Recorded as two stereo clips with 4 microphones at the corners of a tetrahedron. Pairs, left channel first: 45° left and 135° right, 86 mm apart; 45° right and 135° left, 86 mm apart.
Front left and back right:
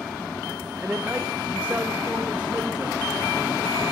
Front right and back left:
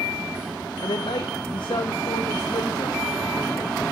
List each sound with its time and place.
0.8 s a man speaking: 65° right, 0.7 m